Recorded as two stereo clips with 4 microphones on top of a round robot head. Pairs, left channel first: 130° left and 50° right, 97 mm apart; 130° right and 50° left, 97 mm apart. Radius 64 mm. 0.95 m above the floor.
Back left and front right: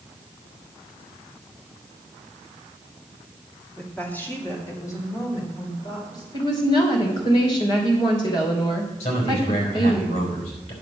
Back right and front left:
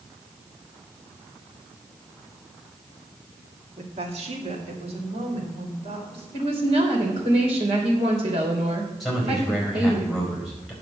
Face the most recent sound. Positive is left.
turn(degrees=140)